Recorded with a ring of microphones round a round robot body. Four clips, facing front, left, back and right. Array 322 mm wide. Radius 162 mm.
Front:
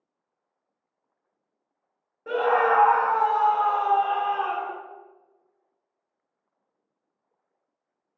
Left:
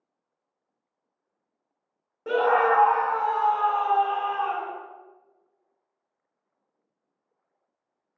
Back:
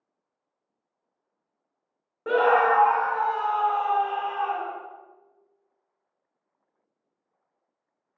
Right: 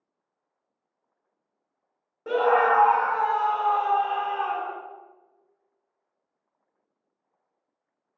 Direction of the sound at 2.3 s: 165° left.